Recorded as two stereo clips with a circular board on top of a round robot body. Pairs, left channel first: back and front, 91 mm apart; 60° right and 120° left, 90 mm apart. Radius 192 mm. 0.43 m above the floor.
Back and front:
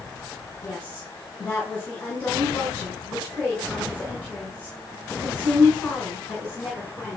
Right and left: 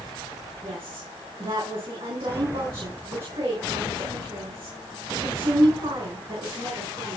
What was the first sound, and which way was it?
A woman speaking, 110° left.